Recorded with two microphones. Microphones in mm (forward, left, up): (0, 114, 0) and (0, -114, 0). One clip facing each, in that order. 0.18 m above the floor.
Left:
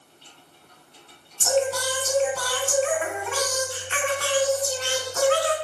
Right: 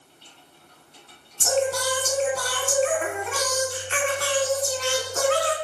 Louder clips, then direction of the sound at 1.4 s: Even; 45° right (ahead or behind).